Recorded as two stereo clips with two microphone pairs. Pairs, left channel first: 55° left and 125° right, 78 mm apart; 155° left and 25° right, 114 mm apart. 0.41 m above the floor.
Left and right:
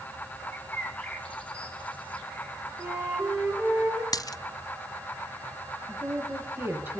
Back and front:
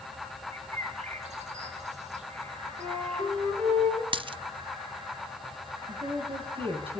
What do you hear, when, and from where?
0.5 s a bird: 15° right, 3 m
2.8 s a flute: 45° right, 9.5 m
4.1 s a dropped coin: 15° left, 0.6 m
5.9 s a woman speaking: 60° right, 8 m